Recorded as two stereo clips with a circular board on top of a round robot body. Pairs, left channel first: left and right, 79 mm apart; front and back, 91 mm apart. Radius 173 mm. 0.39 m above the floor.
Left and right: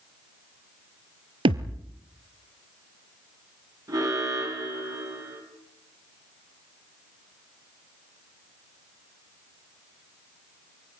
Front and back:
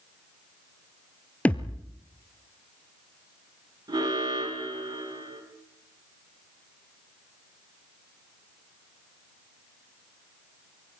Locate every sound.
1.4 s a thud: 75° right, 1.2 m
3.9 s an alarm: 135° right, 9 m